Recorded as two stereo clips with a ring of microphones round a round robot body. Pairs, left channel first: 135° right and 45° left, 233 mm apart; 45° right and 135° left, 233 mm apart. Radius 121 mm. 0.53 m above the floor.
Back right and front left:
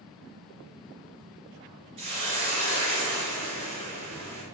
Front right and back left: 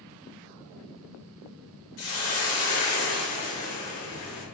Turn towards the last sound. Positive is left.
turn(degrees=-20)